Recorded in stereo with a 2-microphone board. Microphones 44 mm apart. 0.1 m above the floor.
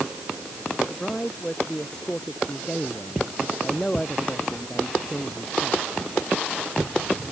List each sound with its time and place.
0.9 s a man speaking: 15° left (ahead or behind)